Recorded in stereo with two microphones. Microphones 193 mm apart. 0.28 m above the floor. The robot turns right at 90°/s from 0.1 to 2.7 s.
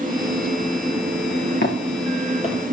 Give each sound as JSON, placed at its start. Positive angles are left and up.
{"t": 1.6, "sound": "footsteps", "side_deg": 55, "distance_m": 3.5}